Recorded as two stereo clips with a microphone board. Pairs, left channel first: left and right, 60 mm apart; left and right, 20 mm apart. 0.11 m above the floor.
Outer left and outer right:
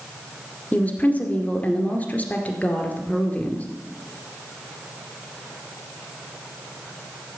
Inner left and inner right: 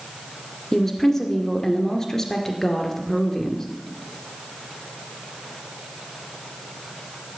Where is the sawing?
No sawing in this recording.